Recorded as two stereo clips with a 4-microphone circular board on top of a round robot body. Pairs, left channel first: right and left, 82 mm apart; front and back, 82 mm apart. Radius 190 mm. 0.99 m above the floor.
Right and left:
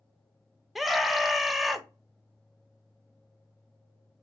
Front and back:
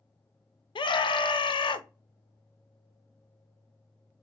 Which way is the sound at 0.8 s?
Straight ahead.